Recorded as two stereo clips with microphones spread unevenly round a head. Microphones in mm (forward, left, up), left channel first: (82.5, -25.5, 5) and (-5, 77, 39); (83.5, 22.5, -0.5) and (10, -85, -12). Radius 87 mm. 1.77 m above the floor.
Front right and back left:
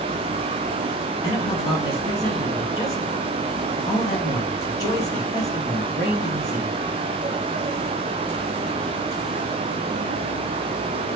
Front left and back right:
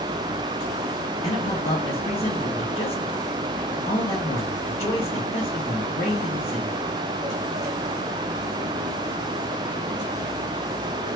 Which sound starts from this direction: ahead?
A man speaking, at 1.2 s.